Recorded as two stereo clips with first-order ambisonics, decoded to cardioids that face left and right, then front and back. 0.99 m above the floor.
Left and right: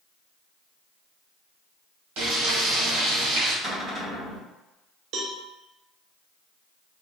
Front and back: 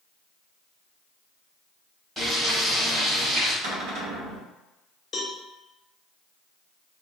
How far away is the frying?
About 1.4 m.